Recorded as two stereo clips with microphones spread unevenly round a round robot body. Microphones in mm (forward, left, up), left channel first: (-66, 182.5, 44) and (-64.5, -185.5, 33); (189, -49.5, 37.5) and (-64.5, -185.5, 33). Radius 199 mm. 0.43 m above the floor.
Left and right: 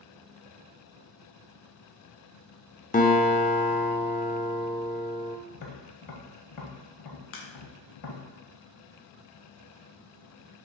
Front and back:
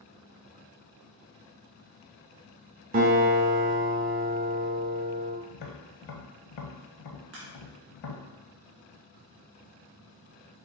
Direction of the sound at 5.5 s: 45° left.